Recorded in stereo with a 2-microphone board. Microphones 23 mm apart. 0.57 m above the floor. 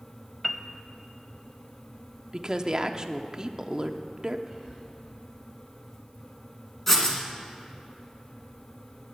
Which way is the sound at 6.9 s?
15° left (ahead or behind).